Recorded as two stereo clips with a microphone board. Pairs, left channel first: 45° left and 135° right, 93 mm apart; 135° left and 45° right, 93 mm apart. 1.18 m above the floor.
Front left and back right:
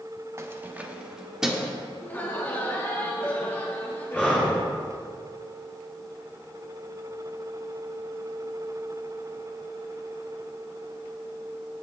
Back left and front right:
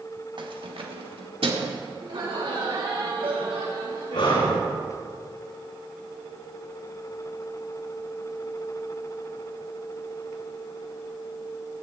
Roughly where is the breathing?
Behind left.